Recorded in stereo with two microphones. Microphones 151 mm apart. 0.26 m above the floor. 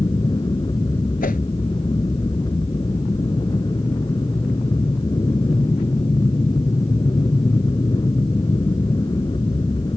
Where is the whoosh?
75° left (ahead or behind).